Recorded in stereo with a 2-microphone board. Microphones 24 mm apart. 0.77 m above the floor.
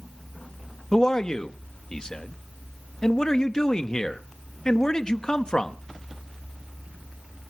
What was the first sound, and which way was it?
A man speaking, 25° left (ahead or behind).